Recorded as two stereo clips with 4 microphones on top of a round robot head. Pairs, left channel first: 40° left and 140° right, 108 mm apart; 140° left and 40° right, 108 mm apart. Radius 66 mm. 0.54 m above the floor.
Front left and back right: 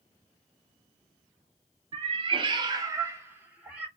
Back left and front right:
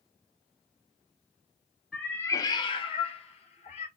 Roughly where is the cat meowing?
Behind right.